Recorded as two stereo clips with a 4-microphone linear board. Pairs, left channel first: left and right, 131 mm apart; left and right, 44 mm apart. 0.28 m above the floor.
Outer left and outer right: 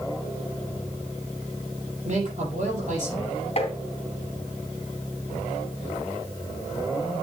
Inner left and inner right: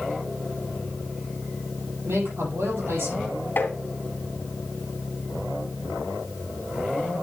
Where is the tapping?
50° left (ahead or behind), 2.5 m.